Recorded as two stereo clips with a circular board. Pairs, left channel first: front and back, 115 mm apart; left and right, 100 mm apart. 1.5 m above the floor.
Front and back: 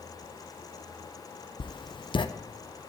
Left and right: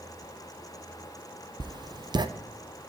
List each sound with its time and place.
1.6 s writing: 45° right, 0.7 m